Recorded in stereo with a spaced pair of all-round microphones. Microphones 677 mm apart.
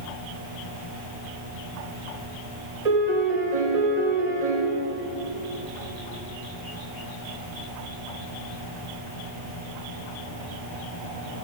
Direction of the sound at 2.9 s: 65° right (ahead or behind).